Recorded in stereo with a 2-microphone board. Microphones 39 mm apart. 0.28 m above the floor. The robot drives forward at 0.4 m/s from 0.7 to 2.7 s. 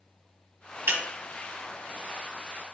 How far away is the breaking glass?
About 1.0 m.